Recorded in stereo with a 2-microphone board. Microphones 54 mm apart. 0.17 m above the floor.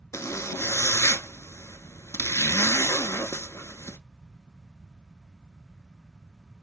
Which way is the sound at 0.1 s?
65° left (ahead or behind).